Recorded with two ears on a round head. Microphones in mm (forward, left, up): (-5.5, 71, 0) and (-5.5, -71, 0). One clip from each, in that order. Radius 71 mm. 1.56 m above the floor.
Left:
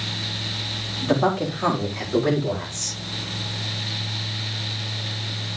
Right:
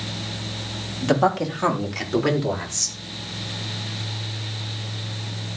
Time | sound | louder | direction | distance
1.0 | a man speaking | right 2 dB | 80° right | 4 m